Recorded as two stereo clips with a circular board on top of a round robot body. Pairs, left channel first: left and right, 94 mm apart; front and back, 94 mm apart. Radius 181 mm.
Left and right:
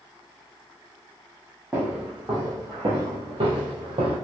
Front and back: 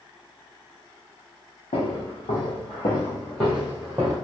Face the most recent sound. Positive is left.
turn(degrees=-125)